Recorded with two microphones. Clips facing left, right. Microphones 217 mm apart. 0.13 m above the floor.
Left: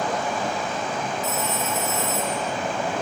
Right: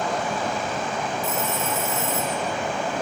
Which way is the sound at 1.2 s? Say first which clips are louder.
Even; 55° right (ahead or behind).